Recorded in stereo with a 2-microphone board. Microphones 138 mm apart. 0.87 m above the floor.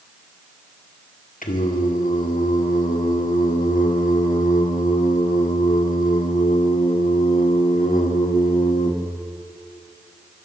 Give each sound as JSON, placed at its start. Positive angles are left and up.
{"t": 1.4, "sound": "singing", "side_deg": 75, "distance_m": 1.7}